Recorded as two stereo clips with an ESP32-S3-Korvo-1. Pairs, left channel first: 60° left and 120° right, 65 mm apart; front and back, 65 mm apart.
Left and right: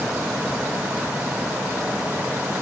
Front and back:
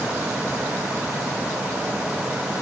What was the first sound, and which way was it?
Only background noise.